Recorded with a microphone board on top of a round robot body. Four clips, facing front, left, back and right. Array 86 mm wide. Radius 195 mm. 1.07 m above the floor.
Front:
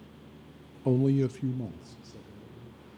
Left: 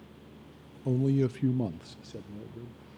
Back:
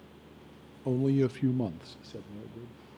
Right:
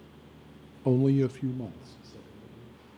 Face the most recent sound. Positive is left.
turn(degrees=135)